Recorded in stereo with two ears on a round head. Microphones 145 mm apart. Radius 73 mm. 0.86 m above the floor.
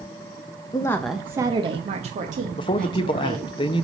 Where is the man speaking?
30° left (ahead or behind), 0.6 m.